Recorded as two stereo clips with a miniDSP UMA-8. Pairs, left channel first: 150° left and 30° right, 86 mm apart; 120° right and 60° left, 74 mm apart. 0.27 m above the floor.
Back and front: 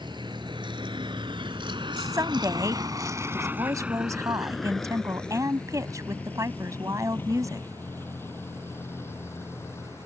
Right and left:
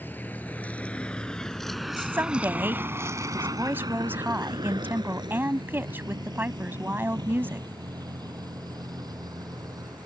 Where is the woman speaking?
5° left.